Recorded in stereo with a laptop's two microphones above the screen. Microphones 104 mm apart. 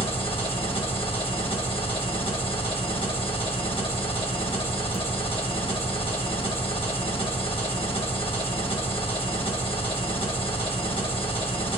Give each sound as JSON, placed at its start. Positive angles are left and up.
{"t": 0.0, "sound": "an engine running", "side_deg": 60, "distance_m": 1.0}